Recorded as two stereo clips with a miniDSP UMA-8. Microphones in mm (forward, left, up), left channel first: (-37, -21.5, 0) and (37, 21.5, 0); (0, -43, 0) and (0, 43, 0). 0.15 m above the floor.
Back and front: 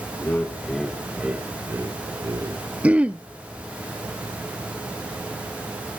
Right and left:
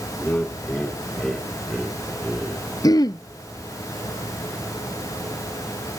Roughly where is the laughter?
Behind right.